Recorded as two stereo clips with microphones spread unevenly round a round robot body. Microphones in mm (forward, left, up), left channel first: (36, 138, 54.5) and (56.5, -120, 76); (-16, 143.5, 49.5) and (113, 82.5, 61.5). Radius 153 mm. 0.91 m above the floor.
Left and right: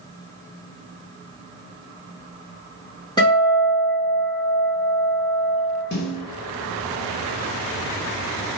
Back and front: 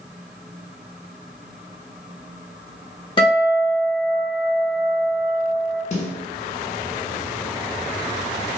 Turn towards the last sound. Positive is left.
turn(degrees=130)